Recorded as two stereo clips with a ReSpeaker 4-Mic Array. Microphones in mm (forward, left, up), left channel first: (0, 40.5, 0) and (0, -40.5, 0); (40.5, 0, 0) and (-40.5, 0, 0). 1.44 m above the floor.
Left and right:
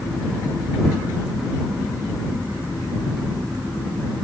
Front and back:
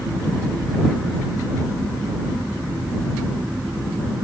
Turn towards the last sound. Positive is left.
No sound to turn to.